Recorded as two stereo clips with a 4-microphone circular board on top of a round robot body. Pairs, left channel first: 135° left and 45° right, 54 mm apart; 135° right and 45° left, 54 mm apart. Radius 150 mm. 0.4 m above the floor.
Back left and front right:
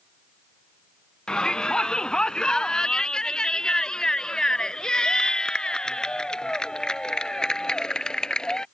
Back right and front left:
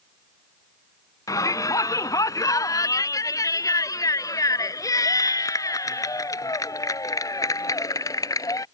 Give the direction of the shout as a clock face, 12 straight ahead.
5 o'clock.